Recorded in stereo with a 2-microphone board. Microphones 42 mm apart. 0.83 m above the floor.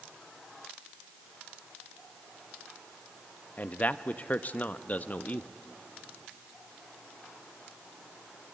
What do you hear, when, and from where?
3.6 s a man speaking: 40° left (ahead or behind), 0.7 m